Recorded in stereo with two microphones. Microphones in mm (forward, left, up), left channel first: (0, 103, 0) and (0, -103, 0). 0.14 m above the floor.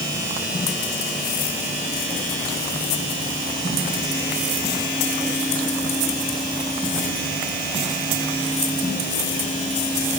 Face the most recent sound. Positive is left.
No sound to turn to.